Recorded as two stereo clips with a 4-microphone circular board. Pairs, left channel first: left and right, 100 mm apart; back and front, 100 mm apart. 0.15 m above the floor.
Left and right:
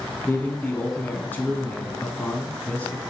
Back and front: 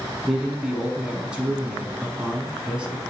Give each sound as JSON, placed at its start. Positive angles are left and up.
{"t": 0.2, "sound": "a man speaking", "azimuth_deg": 60, "distance_m": 1.0}